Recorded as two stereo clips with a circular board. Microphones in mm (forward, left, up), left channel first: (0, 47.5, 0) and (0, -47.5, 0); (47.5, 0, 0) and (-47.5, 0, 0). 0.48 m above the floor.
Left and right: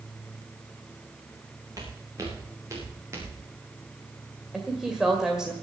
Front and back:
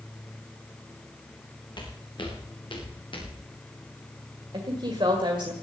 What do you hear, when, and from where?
1.8 s footsteps: 40° right, 5 m; by 3.4 s 30° right, 6.5 m
4.5 s a woman speaking: 170° right, 1.9 m